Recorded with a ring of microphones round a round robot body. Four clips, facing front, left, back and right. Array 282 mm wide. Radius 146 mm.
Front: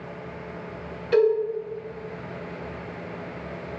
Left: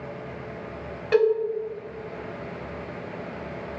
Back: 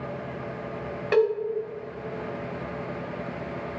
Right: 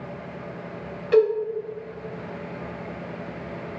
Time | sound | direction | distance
1.1 | a cowbell | 160° left | 3 m